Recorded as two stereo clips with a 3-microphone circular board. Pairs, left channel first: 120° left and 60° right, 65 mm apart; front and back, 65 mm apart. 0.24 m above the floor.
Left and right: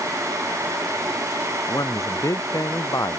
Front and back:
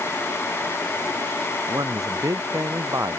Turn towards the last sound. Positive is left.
turn(degrees=150)